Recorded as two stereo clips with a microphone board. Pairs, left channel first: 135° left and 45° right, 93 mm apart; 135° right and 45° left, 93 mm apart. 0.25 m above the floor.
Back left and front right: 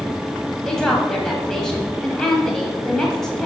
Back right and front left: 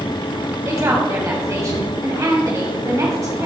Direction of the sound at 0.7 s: 55° left.